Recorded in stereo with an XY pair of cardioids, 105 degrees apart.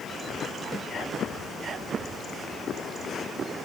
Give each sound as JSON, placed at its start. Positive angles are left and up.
{"t": 0.7, "sound": "a snare drum", "azimuth_deg": 5, "distance_m": 1.6}